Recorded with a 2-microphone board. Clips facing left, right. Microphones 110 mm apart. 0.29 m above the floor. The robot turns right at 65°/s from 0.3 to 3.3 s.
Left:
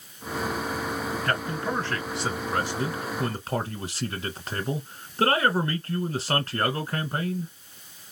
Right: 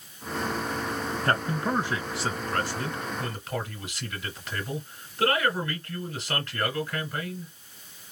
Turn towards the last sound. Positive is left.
turn(degrees=65)